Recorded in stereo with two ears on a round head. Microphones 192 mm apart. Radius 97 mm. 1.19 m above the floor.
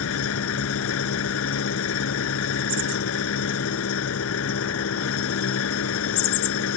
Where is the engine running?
70° left (ahead or behind).